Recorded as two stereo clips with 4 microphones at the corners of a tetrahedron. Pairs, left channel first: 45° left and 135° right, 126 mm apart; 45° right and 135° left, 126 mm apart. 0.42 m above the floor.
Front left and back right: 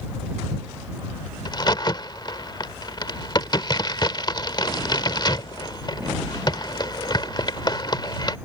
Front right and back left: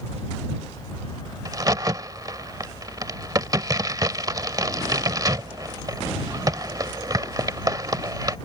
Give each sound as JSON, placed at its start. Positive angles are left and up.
{"t": 1.4, "sound": "a crack", "azimuth_deg": 85}